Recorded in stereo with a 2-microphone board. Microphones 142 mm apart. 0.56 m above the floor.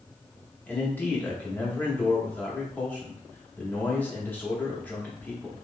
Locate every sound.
0.7 s a man speaking: 15° left (ahead or behind), 0.9 m